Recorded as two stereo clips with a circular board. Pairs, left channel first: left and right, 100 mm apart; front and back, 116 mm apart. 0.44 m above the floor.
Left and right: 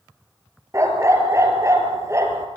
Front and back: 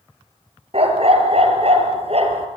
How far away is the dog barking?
About 3.5 m.